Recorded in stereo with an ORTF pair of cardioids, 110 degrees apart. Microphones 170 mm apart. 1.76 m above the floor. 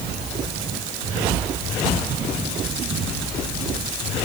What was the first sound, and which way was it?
Only background noise.